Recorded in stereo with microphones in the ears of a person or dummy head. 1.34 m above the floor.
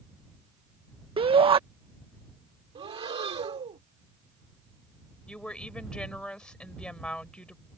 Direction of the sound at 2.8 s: 30° right (ahead or behind).